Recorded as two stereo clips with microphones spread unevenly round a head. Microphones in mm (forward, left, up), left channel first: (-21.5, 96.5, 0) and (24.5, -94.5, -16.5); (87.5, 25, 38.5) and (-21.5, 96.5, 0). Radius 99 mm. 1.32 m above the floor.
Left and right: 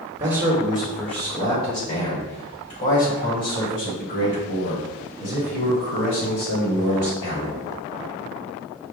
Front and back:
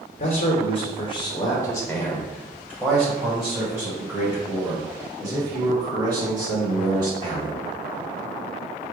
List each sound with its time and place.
0.2 s a man speaking: 10° right, 1.0 m; by 7.6 s 95° left, 4 m